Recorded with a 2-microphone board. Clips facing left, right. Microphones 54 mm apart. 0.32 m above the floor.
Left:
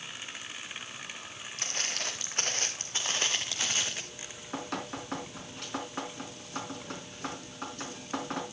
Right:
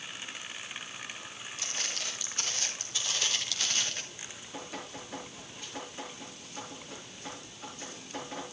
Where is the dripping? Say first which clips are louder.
Left 2 dB; 70° left (ahead or behind), 3.5 m.